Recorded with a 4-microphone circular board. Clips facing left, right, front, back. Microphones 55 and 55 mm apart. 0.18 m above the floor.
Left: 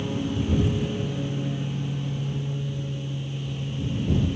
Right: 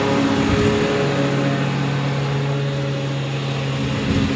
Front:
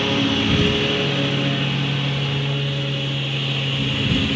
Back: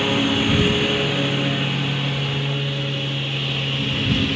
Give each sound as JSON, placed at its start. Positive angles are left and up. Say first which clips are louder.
{"t": 0.0, "sound": "a lawn mower", "louder": "right 11 dB, even", "azimuth_deg": -95}